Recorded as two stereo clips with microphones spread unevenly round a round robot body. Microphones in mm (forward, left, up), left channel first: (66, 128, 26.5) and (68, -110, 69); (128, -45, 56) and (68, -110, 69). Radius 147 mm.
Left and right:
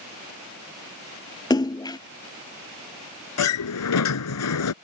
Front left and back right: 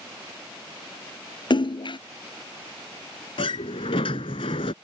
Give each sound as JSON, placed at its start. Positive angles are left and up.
{"t": 1.5, "sound": "a splash", "azimuth_deg": 15}
{"t": 3.4, "sound": "a sliding door", "azimuth_deg": 90}